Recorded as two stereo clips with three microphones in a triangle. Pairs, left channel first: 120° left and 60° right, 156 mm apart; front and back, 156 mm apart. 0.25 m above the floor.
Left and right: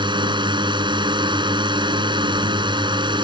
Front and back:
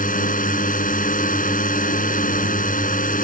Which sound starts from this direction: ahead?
A drone, at 0.0 s.